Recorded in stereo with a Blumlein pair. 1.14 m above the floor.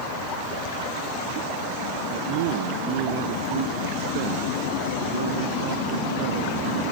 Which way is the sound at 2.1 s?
50° right.